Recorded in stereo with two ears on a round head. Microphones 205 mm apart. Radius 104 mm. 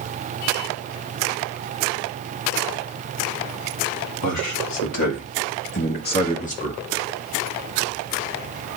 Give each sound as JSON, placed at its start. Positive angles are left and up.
{"t": 4.2, "sound": "a man speaking", "side_deg": 80, "distance_m": 2.0}